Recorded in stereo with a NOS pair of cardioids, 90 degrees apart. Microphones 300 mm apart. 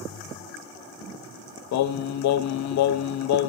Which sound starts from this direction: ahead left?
Singing, at 1.7 s.